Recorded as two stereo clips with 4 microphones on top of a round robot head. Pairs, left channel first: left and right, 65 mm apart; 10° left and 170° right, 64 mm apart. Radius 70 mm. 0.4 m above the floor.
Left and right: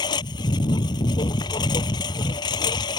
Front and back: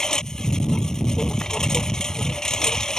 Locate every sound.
0.0 s a lawn mower: 90° left